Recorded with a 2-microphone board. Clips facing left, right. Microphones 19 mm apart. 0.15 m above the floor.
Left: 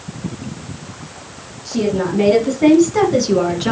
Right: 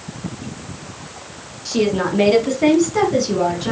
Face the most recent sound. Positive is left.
turn(degrees=30)  # may be behind; listen again after turning